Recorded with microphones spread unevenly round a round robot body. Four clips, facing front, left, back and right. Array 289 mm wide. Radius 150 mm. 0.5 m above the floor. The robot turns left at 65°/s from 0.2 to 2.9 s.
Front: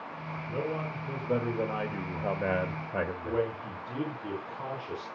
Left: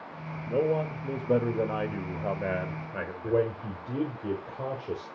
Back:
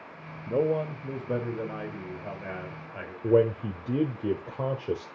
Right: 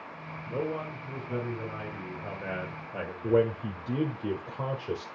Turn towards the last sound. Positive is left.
turn(degrees=-175)